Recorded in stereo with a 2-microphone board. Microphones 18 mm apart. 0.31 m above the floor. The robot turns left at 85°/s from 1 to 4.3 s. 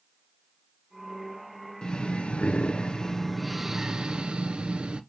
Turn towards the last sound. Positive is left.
turn(degrees=-75)